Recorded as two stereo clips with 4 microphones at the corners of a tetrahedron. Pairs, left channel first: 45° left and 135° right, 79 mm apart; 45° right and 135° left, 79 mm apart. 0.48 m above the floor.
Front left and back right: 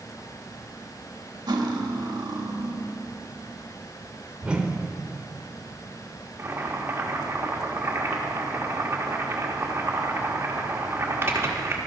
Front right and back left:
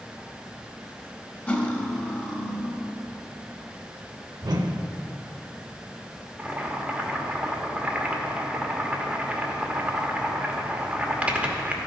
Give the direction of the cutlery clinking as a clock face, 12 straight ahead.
4 o'clock.